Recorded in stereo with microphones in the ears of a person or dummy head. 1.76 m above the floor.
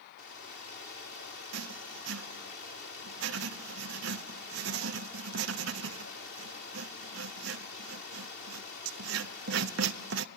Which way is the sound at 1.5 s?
70° right (ahead or behind).